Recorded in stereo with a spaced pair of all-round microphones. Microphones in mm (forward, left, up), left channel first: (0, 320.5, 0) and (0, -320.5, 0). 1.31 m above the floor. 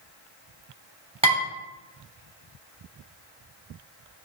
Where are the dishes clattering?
10° right (ahead or behind), 3 m.